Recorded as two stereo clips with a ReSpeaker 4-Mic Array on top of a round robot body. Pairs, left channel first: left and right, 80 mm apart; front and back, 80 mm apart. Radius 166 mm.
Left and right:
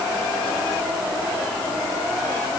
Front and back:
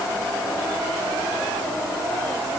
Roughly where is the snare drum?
I don't hear a snare drum.